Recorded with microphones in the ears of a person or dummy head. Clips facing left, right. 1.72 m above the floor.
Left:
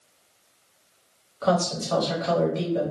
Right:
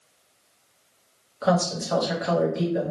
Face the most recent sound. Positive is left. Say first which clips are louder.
# even
turn(degrees=-15)  # may be behind; listen again after turning